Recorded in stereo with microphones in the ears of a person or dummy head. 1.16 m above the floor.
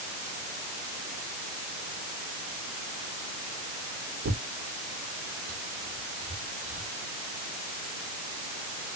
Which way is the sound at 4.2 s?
60° right (ahead or behind).